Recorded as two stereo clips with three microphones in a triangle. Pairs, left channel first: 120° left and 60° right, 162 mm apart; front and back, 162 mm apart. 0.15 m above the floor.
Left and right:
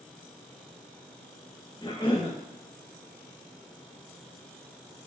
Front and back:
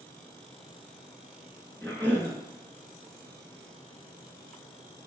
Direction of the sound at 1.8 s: 75° left.